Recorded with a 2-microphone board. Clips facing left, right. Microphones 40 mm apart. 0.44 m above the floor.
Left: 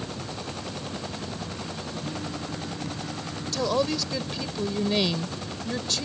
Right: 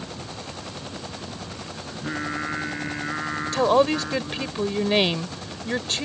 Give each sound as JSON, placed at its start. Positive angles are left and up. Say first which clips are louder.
{"t": 1.9, "sound": "singing", "louder": "right 8 dB", "side_deg": -70}
{"t": 3.5, "sound": "a woman speaking", "louder": "right 6 dB", "side_deg": -40}